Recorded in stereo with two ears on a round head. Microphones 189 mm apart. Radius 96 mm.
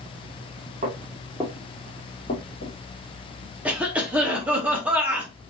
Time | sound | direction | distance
0.8 | footsteps | 30° right (ahead or behind) | 1.6 m
3.6 | a cough | 5° right (ahead or behind) | 0.8 m